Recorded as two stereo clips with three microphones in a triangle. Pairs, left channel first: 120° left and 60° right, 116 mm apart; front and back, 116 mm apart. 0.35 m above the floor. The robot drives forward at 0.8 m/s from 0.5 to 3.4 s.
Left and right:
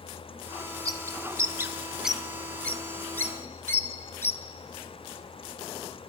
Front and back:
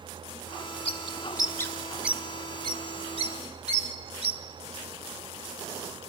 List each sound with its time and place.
0.8 s a bird: 10° right, 1.1 m; by 4.4 s 175° right, 1.4 m